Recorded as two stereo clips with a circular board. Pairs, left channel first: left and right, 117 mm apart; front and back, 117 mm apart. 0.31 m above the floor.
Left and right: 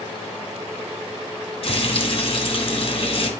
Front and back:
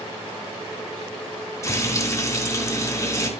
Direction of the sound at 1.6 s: 60° left.